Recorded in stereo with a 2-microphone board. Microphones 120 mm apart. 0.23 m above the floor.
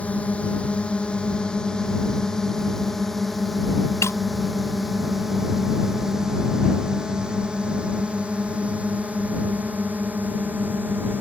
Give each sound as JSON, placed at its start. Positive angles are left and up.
{"t": 0.0, "sound": "a drone", "side_deg": 10}
{"t": 4.0, "sound": "breaking glass", "side_deg": 25}